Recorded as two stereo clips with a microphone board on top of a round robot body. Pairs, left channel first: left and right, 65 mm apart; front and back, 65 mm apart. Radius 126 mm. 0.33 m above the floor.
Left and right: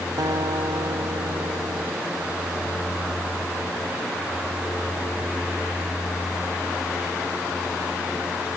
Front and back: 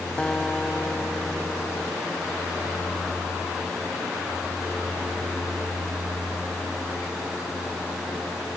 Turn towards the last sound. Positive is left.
turn(degrees=-75)